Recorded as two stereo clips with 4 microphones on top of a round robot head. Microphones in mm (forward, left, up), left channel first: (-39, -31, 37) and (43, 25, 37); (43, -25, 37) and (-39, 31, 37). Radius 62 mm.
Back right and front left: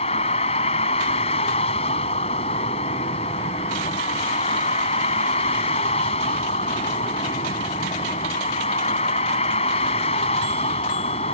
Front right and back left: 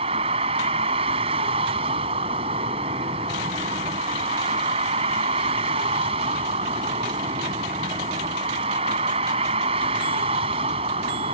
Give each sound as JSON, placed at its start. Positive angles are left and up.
{"t": 0.0, "sound": "a vehicle", "azimuth_deg": 180}